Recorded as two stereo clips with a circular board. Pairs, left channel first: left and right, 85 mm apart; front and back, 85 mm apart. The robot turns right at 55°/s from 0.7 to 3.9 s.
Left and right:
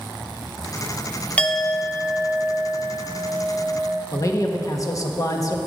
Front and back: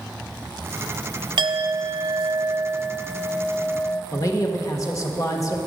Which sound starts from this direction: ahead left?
A man speaking, at 4.1 s.